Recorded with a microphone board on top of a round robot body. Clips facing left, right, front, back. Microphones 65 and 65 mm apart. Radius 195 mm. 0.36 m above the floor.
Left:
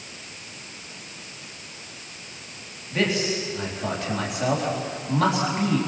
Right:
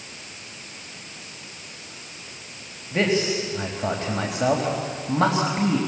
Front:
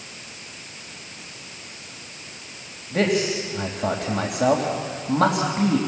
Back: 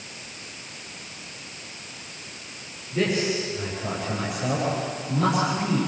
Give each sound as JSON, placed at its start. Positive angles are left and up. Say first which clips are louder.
{"t": 2.9, "sound": "a man speaking", "louder": "right 2 dB, front 3 dB", "azimuth_deg": -30, "distance_m": 4.0}